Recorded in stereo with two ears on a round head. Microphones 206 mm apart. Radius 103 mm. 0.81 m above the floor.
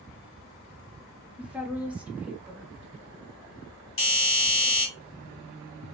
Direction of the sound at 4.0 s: 55° left (ahead or behind).